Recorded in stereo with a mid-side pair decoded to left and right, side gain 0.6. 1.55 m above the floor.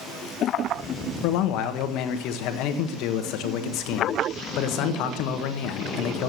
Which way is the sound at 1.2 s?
70° left.